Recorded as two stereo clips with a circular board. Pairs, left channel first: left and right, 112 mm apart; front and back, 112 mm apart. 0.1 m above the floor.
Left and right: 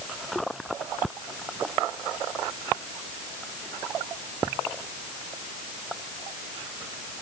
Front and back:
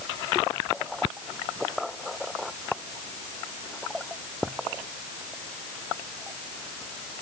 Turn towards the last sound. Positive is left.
No sound to turn to.